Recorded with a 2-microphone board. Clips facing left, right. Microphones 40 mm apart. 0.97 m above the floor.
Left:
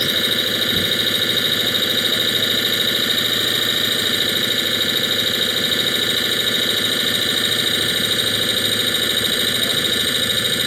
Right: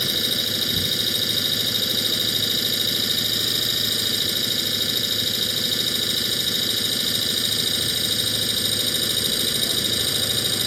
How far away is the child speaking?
I don't hear a child speaking.